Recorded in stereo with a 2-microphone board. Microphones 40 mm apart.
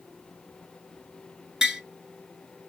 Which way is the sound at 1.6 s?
15° right (ahead or behind).